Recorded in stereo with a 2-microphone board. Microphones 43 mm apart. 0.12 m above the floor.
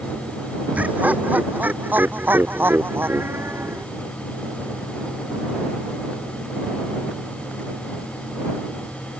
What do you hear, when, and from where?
0.8 s laughter: 35° right (ahead or behind); by 3.9 s 65° right (ahead or behind)